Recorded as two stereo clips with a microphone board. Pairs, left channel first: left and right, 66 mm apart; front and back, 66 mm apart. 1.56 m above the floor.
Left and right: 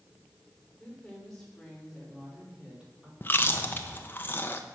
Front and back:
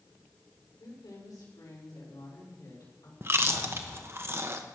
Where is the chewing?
140° left, 1.0 m.